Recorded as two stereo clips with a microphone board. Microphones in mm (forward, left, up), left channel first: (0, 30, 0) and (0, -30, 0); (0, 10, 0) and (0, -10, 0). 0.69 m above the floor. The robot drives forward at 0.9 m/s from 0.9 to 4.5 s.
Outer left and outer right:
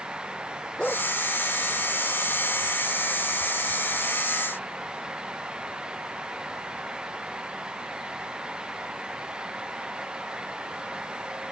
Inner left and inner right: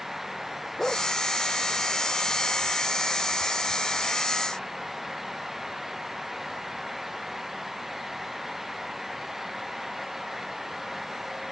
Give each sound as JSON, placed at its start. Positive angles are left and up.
{"t": 0.8, "sound": "a dog barking", "side_deg": 10}